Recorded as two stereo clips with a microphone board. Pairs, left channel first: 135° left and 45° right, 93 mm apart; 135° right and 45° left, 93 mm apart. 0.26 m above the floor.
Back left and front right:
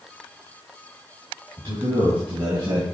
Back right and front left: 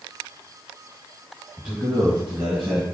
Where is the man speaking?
35° right, 3 m; by 2.8 s 45° right, 1.9 m.